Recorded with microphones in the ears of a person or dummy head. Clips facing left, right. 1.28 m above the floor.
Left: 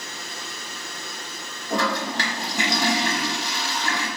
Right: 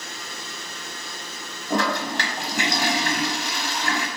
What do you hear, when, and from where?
1.7 s a toilet flushing: 50° right (ahead or behind), 0.9 m